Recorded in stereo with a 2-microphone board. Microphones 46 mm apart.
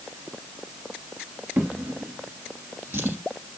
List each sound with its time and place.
1.6 s a drawer: 60° right (ahead or behind), 2 m